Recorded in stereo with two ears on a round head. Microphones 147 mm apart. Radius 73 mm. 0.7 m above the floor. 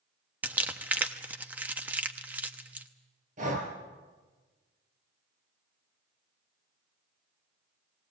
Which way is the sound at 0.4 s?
10° right (ahead or behind).